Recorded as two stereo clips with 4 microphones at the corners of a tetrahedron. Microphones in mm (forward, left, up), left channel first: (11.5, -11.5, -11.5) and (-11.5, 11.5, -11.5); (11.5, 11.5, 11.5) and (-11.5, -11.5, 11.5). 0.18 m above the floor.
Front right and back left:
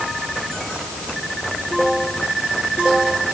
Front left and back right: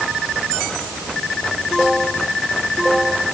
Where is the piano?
No piano in this recording.